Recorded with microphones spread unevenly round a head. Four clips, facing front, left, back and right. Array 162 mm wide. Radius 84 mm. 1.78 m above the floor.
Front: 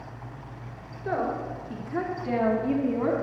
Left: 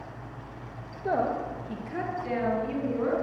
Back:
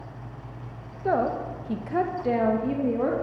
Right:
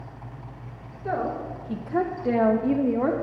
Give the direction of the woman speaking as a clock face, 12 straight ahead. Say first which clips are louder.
Left 1 dB, back 4 dB; 7 o'clock.